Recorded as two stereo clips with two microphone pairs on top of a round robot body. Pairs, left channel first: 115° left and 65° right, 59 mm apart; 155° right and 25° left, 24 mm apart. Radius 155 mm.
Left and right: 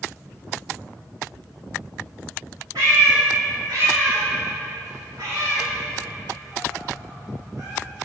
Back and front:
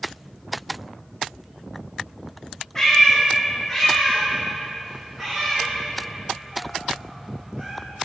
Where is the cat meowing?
80° right, 1.8 m; by 7.7 s 35° right, 5 m.